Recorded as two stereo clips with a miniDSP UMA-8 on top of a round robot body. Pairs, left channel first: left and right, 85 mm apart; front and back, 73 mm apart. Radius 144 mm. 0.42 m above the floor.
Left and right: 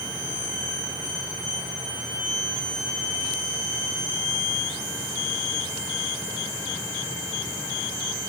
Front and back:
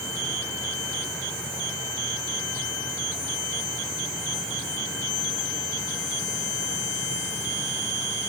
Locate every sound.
Only background noise.